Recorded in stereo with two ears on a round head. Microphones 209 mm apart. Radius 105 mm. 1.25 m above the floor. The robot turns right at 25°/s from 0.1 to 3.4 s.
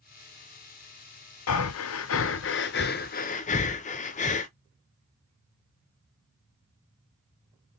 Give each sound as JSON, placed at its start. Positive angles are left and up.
{"t": 1.5, "sound": "breathing", "side_deg": 70, "distance_m": 0.5}